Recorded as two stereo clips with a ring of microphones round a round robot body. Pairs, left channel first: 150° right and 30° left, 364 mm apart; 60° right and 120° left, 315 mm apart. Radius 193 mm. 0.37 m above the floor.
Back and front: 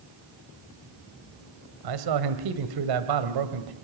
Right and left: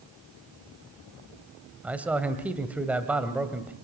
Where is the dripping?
No dripping in this recording.